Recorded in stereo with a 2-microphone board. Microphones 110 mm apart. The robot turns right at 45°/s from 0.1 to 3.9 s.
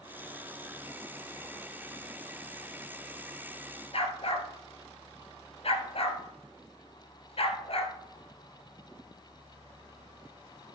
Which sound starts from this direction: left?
A dog barking, at 3.9 s.